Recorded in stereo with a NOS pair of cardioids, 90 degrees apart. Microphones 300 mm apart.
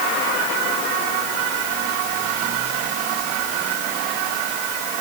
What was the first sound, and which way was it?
Only background noise.